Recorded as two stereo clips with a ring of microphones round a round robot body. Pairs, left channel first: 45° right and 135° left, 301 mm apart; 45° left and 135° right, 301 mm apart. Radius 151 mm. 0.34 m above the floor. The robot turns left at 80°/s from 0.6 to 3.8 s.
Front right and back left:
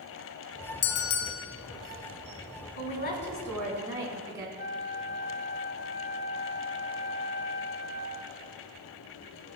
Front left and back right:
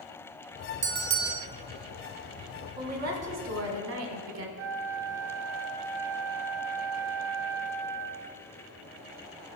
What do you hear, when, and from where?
0.8 s a bell: 70° right, 0.5 m; by 1.5 s 120° right, 0.5 m
2.8 s a woman speaking: 65° right, 1.2 m; by 4.5 s 150° right, 1.2 m
4.6 s a flute: 105° right, 0.6 m